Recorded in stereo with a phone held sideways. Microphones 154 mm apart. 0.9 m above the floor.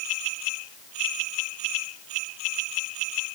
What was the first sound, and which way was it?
Only background noise.